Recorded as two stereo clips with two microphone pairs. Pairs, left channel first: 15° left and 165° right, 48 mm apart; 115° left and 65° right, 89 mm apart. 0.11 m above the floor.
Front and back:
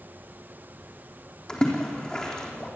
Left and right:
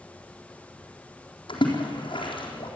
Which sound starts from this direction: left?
A splash, at 1.5 s.